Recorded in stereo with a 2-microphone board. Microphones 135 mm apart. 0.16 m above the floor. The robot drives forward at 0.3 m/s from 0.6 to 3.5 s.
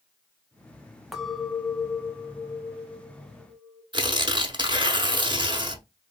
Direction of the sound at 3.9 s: 35° right (ahead or behind).